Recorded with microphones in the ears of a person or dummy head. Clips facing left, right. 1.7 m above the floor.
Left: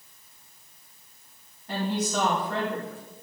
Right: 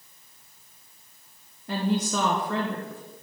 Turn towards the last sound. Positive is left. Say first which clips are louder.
# right 2 dB
turn(degrees=-55)  # may be behind; listen again after turning